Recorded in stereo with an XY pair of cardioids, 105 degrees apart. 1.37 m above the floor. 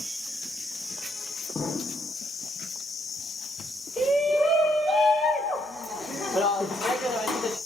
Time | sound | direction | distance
1.6 | an explosion | 35° left | 0.8 m
4.0 | a shout | 60° left | 1.7 m